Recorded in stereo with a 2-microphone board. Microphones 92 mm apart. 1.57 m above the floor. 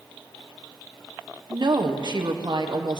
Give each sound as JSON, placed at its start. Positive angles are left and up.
{"t": 1.5, "sound": "a woman speaking", "side_deg": -50, "distance_m": 1.2}